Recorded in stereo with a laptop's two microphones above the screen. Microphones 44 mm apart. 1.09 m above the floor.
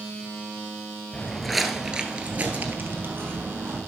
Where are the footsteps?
15° left (ahead or behind), 1.3 m; by 3.8 s 50° right (ahead or behind), 2 m.